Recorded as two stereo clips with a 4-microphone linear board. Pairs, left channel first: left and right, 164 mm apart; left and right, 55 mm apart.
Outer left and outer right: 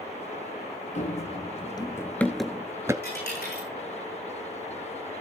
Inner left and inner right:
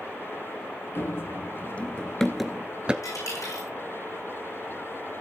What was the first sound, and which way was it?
Running footsteps, 50° left (ahead or behind).